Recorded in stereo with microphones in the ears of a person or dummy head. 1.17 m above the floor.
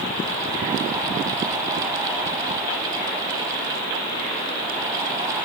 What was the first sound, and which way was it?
Only background noise.